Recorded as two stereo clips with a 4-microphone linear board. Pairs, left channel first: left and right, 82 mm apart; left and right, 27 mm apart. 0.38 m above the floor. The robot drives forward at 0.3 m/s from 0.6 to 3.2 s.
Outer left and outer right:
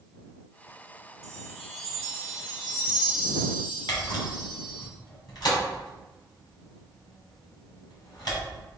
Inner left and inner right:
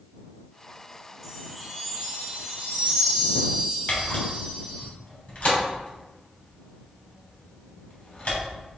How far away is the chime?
About 2.5 m.